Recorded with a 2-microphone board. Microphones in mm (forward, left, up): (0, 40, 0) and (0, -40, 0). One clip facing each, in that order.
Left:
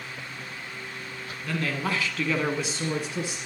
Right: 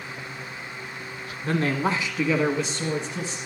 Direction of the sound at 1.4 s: 40° right (ahead or behind).